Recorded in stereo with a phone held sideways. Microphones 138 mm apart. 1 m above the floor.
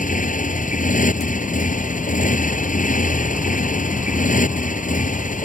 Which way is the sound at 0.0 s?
70° left (ahead or behind).